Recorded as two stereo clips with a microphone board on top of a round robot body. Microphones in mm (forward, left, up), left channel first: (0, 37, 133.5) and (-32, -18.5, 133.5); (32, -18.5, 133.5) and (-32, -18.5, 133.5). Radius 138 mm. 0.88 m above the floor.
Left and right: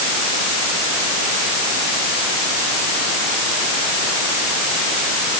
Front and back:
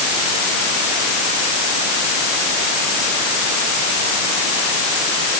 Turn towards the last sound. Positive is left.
No sound to turn to.